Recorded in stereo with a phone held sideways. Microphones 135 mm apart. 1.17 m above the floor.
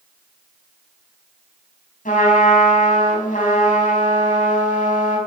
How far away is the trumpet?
About 4 m.